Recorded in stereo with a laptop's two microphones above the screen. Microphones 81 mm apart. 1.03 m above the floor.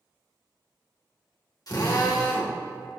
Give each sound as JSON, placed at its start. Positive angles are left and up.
{"t": 1.7, "sound": "a drill", "side_deg": 55, "distance_m": 2.5}